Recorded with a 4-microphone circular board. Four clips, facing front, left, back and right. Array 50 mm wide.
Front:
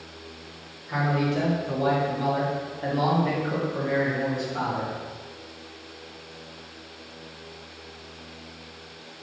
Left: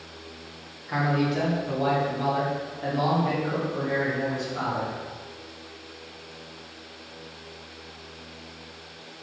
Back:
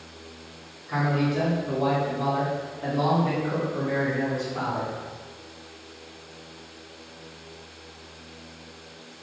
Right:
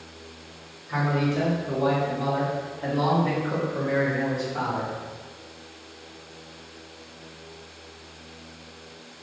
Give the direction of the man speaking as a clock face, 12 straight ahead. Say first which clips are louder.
Even, even; 9 o'clock.